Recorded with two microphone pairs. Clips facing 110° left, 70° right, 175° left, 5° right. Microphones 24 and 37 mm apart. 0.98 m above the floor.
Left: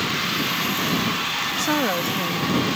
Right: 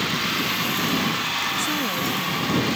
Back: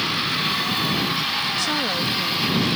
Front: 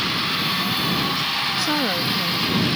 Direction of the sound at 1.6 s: 75° left.